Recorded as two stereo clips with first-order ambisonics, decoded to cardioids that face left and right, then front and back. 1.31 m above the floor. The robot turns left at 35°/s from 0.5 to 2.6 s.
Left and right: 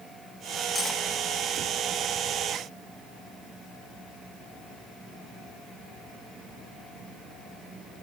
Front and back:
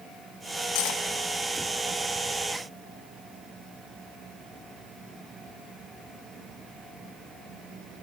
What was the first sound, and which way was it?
Cutlery clinking, 10° left.